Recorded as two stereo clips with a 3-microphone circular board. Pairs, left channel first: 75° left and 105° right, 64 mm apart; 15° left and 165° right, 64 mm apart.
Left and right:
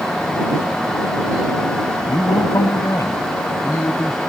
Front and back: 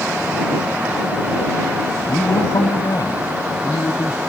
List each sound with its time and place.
2.1 s a man speaking: 40° left; by 4.2 s 35° left